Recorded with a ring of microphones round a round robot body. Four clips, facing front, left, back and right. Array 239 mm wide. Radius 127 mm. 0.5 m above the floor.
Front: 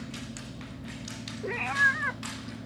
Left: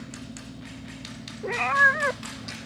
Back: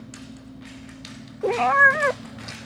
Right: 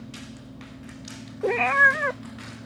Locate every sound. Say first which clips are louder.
1.4 s a cat meowing: right 2 dB, back 11 dB; 140° right; by 2.7 s 155° left